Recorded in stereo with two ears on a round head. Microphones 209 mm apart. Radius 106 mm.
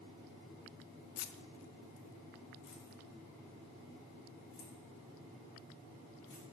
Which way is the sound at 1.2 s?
60° left (ahead or behind).